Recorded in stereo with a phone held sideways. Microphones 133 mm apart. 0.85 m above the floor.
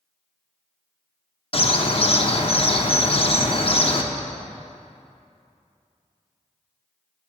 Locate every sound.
1.5 s a bird: 45° left (ahead or behind), 0.6 m